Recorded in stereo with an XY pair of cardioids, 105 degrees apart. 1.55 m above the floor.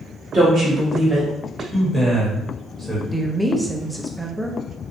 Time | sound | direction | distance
0.3 | a woman speaking | 50° right | 1.6 m
1.7 | a man speaking | straight ahead | 1.3 m
3.1 | a woman speaking | 5° right | 0.6 m